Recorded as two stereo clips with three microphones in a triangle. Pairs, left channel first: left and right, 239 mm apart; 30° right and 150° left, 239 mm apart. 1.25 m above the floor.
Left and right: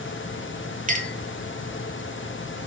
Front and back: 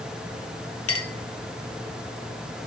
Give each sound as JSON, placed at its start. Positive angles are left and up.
{"t": 0.9, "sound": "a clink", "azimuth_deg": -30, "distance_m": 0.5}